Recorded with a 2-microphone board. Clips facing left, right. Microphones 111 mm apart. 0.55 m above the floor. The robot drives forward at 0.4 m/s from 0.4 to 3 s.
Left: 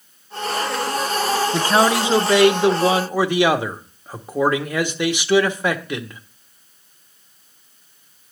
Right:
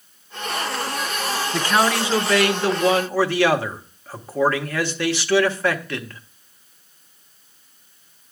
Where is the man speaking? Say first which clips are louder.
Left 1 dB; 25° left (ahead or behind), 0.8 m; by 6.2 s 15° left (ahead or behind), 1.2 m.